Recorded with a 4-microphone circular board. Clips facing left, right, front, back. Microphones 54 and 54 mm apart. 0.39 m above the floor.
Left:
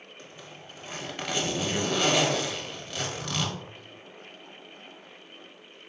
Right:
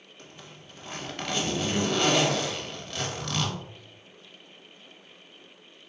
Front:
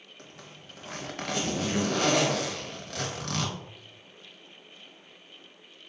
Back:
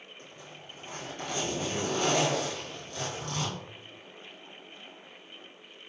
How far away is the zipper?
About 1.0 m.